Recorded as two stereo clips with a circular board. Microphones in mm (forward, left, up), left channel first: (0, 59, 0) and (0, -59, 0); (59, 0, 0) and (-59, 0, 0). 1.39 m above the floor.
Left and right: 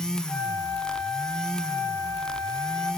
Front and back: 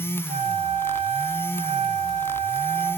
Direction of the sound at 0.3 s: 170° left.